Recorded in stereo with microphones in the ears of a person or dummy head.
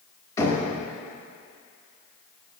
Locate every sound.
0.4 s knocking: 20° left (ahead or behind), 2 m